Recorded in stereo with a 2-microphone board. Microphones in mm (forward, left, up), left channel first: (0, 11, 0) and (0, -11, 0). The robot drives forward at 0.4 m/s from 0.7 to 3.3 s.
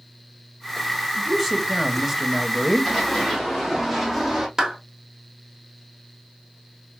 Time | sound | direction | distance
1.2 | a man speaking | 10° right (ahead or behind) | 1.2 m
2.9 | running footsteps | 5° left (ahead or behind) | 4.5 m
4.6 | a clap | 20° right (ahead or behind) | 1.6 m